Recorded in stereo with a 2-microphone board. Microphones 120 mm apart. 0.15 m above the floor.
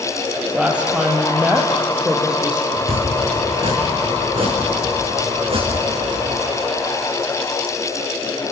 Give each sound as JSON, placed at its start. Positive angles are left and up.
{"t": 0.5, "sound": "a woman speaking", "side_deg": -10, "distance_m": 3.5}
{"t": 2.7, "sound": "chopping", "side_deg": -55, "distance_m": 5.5}